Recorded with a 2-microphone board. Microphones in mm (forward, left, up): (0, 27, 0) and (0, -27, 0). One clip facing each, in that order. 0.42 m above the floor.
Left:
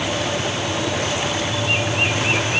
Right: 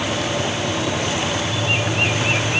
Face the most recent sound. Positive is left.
No sound to turn to.